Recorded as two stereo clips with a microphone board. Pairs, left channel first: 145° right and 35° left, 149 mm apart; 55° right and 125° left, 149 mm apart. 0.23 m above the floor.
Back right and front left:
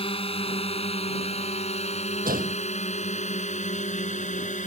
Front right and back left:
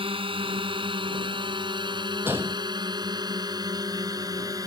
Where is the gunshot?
50° left.